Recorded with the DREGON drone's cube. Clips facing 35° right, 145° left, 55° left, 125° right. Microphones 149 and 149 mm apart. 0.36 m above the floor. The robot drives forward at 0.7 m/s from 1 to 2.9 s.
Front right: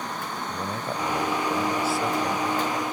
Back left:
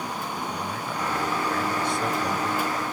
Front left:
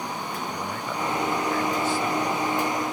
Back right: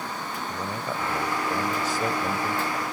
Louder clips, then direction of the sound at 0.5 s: Front right 1 dB, even; 60° right.